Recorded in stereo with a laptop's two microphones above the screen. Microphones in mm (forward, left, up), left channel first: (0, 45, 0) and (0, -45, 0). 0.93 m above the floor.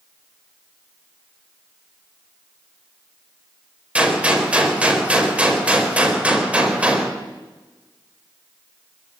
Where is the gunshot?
15° right (ahead or behind), 4 m.